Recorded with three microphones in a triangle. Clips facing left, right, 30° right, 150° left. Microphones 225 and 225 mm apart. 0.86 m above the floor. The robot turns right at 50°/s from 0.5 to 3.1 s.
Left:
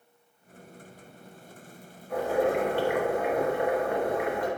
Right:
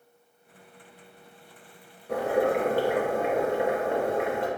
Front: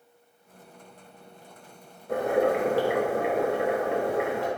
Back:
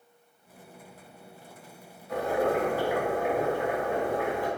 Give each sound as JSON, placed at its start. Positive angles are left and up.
{"t": 2.1, "sound": "boiling", "azimuth_deg": -75, "distance_m": 0.7}